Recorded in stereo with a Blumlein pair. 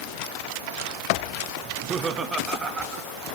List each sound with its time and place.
1.6 s laughter: 25° right, 1.1 m; by 3.4 s 15° right, 2 m